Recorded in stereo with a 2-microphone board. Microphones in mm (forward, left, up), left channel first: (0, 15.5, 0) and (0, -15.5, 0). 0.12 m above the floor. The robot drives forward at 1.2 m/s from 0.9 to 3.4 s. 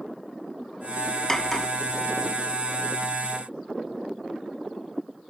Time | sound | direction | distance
1.3 | cutlery clinking | 15° left (ahead or behind) | ?